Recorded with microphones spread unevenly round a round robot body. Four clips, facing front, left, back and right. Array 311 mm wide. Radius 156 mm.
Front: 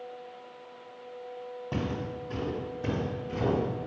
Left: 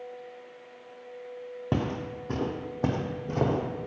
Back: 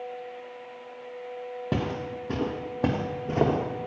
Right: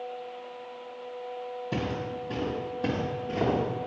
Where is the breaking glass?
No breaking glass in this recording.